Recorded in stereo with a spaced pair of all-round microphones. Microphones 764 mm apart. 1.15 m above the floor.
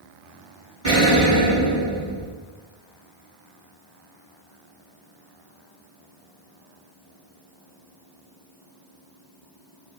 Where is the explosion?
20° right (ahead or behind), 1.7 m.